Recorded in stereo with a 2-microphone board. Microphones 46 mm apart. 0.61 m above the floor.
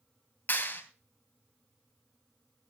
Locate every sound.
0.5 s a clap: 45° left (ahead or behind), 2.5 m